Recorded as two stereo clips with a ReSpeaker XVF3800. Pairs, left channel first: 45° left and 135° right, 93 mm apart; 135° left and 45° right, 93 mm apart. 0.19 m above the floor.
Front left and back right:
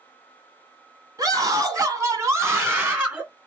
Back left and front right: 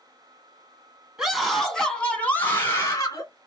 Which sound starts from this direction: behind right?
A scream, at 1.2 s.